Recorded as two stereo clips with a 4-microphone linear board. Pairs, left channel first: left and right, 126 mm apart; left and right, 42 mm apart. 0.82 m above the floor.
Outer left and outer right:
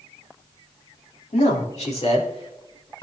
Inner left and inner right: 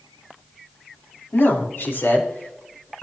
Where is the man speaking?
70° left (ahead or behind), 2.0 m; by 3.0 s 45° left (ahead or behind), 3.5 m.